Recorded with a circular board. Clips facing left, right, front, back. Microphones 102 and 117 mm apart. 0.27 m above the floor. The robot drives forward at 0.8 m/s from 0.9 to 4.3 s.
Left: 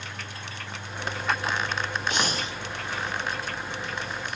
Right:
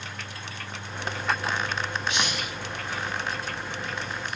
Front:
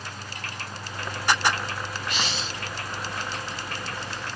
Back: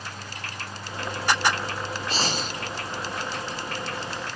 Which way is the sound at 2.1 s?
125° left.